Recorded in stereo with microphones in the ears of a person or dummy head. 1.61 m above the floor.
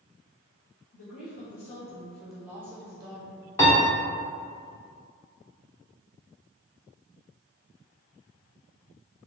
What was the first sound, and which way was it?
A woman speaking, 50° left (ahead or behind).